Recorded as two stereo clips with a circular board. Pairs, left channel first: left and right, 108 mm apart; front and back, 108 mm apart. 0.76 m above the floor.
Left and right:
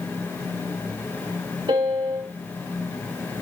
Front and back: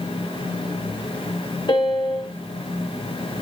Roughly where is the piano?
Ahead right.